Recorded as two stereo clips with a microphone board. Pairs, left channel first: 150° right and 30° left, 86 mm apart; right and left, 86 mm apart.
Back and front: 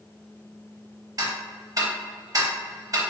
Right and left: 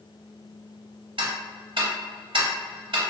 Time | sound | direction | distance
1.2 | ticking | 75° left | 0.5 m